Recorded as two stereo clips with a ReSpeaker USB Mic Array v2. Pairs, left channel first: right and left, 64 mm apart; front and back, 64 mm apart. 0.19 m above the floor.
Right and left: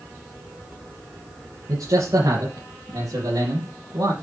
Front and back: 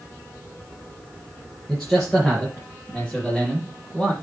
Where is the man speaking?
80° left, 4 m; by 4.1 s 75° left, 5.5 m.